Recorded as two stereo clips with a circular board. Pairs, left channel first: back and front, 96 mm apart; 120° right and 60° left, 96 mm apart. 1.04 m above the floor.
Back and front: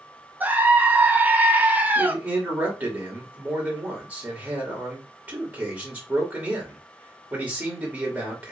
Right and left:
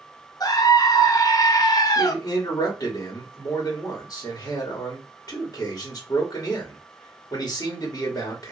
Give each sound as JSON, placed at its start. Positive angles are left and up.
{"t": 0.4, "sound": "a scream", "azimuth_deg": -70, "distance_m": 0.9}
{"t": 1.9, "sound": "a man speaking", "azimuth_deg": -70, "distance_m": 1.8}